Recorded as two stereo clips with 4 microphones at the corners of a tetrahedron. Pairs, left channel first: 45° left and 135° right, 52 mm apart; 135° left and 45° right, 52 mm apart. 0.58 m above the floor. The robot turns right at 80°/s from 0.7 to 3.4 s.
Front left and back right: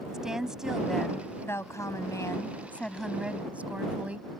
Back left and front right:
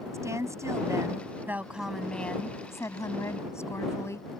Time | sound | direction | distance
0.1 | a woman speaking | 55° right | ?